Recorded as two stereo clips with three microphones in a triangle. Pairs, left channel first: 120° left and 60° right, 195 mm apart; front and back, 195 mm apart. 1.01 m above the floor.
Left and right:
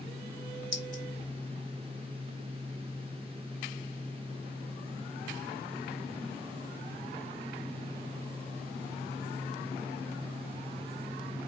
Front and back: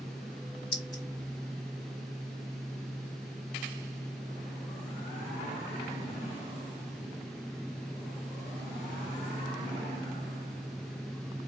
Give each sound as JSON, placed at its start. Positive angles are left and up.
{"t": 0.7, "sound": "a clink", "azimuth_deg": 70, "distance_m": 1.6}